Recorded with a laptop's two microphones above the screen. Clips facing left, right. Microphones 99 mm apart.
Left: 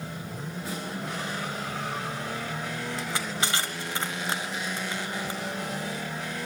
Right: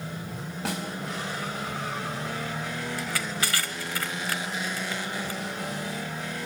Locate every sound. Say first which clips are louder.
0.7 s a snare drum: right 5 dB; 85° right, 3.5 m
3.0 s crushing: even; 25° left (ahead or behind), 1.3 m